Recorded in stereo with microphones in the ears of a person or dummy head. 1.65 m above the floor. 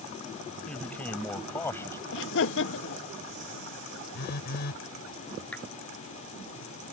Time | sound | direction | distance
0.7 | a man speaking | 10° left (ahead or behind) | ?
2.1 | laughter | 75° left (ahead or behind) | ?
4.1 | a phone buzzing | 60° left (ahead or behind) | ?
5.5 | a clap | 15° left (ahead or behind) | ?